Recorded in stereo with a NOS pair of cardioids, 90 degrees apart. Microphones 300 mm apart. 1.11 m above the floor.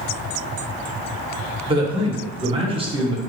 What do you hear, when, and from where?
1.7 s a man speaking: 15° right, 1.0 m